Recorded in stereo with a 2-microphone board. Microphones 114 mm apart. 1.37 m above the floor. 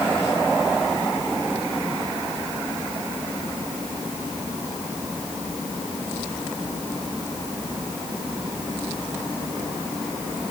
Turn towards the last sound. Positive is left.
No sound to turn to.